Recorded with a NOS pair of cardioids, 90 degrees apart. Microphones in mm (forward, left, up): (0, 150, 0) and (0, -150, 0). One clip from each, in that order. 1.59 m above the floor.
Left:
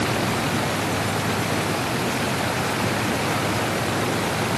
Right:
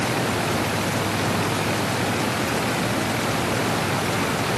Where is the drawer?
No drawer in this recording.